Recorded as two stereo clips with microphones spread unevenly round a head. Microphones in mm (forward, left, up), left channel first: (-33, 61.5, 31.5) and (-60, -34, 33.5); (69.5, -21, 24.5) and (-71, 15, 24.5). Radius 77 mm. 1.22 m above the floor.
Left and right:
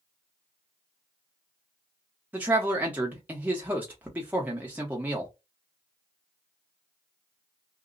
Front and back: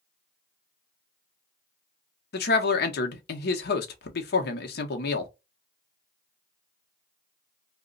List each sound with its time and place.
2.3 s a man speaking: 30° right, 0.8 m